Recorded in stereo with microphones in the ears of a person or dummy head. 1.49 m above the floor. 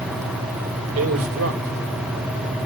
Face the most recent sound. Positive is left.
turn(degrees=-80)